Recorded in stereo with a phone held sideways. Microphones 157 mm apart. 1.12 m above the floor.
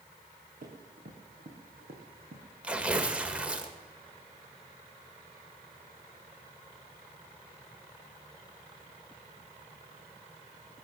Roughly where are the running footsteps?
Right.